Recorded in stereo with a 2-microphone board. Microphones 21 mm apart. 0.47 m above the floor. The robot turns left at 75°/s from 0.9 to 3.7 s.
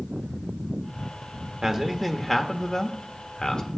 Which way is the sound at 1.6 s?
140° right.